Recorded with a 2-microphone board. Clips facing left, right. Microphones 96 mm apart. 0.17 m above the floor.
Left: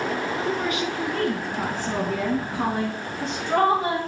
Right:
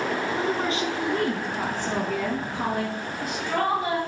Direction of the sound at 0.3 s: 40° right (ahead or behind).